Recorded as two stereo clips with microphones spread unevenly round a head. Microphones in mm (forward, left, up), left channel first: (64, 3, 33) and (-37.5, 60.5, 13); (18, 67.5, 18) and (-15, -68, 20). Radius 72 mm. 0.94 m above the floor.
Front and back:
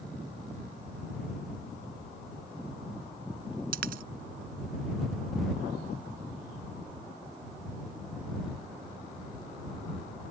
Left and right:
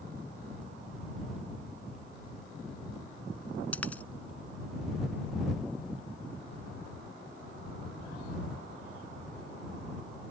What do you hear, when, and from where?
3.7 s a dropped coin: 155° left